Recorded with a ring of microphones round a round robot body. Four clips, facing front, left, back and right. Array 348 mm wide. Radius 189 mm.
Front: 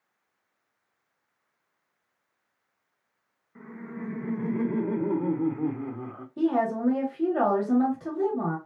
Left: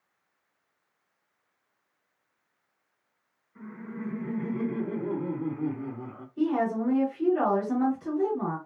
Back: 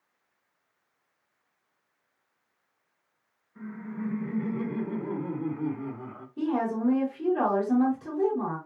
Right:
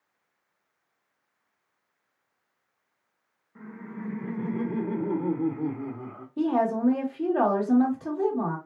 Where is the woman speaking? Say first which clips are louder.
Right 2 dB, front 3 dB; 40° right, 2.5 m.